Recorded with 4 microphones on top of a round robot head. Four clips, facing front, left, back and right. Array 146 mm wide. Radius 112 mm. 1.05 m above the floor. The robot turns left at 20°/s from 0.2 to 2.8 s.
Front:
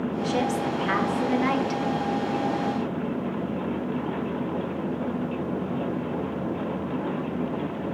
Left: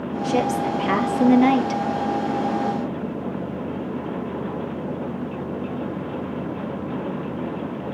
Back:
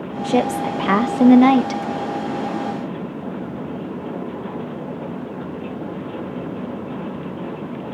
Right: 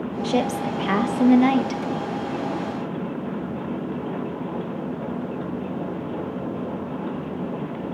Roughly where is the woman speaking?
Behind right.